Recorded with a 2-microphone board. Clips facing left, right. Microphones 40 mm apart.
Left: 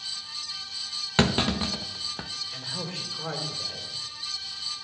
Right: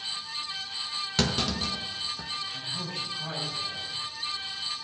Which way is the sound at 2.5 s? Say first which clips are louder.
Even; 70° left (ahead or behind).